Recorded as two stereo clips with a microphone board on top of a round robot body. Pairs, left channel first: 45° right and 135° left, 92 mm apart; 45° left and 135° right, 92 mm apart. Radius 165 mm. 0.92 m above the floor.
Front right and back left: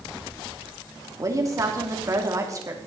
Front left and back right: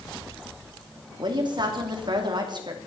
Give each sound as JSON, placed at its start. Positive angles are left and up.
{"t": 1.2, "sound": "a woman speaking", "azimuth_deg": -170, "distance_m": 3.0}